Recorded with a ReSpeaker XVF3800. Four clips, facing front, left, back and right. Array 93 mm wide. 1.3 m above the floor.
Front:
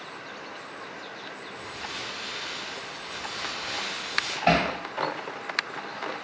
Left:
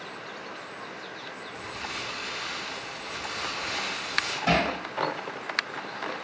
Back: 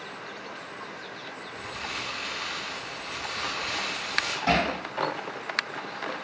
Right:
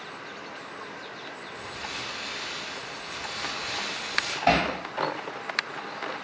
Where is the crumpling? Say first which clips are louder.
Left 1 dB, back 3 dB; 150° left, 1.0 m.